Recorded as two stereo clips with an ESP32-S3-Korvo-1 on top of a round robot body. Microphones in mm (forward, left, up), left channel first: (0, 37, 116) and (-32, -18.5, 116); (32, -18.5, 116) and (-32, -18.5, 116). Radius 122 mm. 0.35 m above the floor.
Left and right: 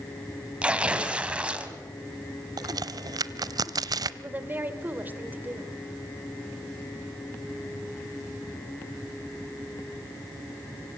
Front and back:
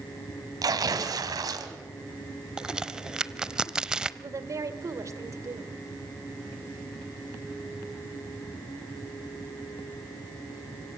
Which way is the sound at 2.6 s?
100° right.